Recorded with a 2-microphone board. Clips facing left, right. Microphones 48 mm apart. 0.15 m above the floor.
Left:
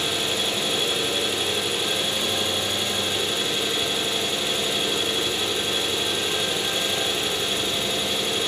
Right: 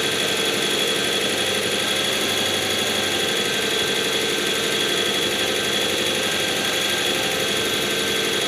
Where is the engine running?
65° right (ahead or behind), 0.9 m.